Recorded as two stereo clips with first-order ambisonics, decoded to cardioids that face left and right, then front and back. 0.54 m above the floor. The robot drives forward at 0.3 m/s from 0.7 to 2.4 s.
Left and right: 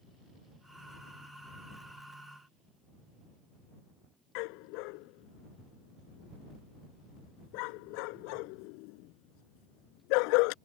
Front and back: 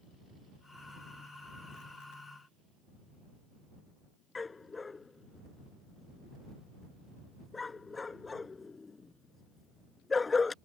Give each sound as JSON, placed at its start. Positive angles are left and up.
{"t": 4.3, "sound": "a dog barking", "azimuth_deg": 75}